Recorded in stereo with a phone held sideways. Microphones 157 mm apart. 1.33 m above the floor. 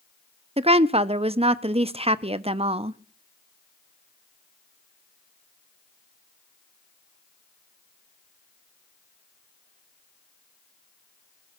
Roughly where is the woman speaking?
Right.